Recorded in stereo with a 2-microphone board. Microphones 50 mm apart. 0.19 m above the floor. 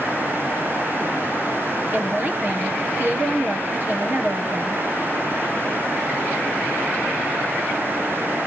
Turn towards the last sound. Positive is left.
turn(degrees=-40)  # may be behind; listen again after turning